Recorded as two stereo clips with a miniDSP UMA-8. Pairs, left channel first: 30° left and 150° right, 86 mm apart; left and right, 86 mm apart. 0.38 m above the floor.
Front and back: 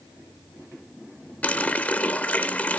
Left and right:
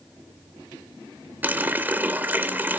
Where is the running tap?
35° right, 0.6 m.